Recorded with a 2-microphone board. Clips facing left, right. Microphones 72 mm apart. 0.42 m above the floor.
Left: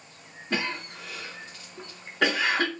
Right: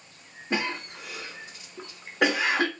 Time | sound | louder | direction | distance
0.5 | a cough | right 1 dB | 20° right (ahead or behind) | 0.7 m